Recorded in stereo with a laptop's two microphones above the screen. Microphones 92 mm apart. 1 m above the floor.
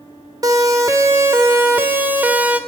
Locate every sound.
0.4 s a siren: 40° right (ahead or behind), 3.5 m; by 2.6 s 15° right (ahead or behind), 4 m